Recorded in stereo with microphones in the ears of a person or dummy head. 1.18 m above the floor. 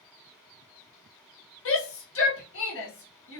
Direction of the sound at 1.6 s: 65° left (ahead or behind).